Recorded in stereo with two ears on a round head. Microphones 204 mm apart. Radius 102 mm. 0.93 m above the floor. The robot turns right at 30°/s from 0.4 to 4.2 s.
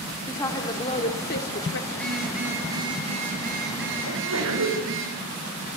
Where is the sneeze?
80° right, 5 m.